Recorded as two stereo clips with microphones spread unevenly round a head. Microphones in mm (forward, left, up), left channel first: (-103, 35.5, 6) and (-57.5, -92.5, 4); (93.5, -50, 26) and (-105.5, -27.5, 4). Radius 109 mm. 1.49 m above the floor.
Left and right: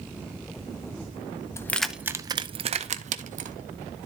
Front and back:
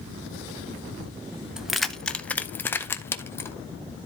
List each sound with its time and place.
1.6 s keys jangling: 75° left, 0.5 m; by 3.6 s 80° right, 1.1 m